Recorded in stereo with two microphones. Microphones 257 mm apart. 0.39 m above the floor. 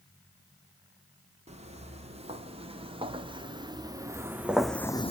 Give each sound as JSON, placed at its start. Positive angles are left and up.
{"t": 1.5, "sound": "footsteps", "side_deg": -25, "distance_m": 4.5}